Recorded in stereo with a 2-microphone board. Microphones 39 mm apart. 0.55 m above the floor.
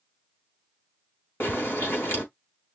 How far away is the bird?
About 4 m.